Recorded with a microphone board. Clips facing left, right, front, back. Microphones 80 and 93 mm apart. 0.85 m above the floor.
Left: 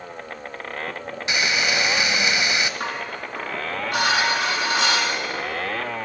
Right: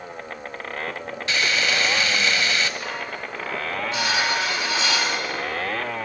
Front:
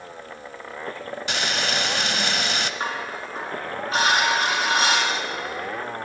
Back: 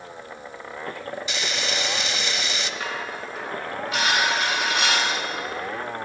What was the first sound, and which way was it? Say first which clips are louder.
Frying: even, front 5 dB; 20° left.